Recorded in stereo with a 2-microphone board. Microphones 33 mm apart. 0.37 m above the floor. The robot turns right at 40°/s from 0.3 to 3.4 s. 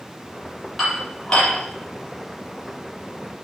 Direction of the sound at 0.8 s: Centre (ahead or behind).